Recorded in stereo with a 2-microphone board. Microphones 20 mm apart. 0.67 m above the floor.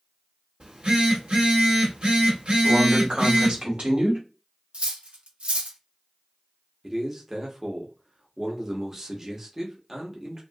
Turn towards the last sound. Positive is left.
turn(degrees=-25)  # may be behind; listen again after turning